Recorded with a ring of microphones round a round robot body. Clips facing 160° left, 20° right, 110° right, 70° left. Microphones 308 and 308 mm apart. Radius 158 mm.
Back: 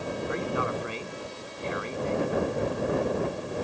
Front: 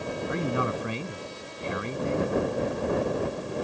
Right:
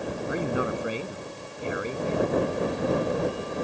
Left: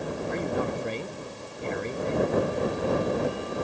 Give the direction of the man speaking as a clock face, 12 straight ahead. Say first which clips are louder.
Front 3 dB, right 2 dB; 1 o'clock.